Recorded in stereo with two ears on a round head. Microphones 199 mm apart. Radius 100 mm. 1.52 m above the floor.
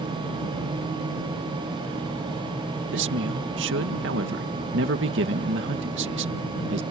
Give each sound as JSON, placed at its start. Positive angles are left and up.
{"t": 2.9, "sound": "a man speaking", "side_deg": -55}